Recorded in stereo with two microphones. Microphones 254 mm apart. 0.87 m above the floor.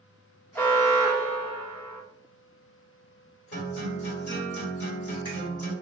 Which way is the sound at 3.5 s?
60° left (ahead or behind).